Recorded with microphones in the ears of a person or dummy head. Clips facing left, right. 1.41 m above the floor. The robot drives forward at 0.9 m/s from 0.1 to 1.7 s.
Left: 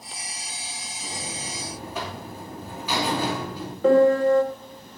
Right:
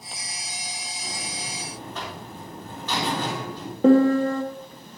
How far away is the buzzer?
About 2 m.